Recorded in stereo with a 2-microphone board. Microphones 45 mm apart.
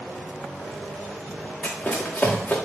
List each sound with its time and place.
1.6 s running footsteps: 30° left (ahead or behind), 4.5 m